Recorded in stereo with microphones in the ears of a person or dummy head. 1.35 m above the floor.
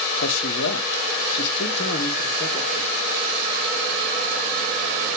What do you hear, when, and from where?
0.2 s a man speaking: 60° left (ahead or behind), 0.8 m; by 2.9 s 55° left (ahead or behind), 2 m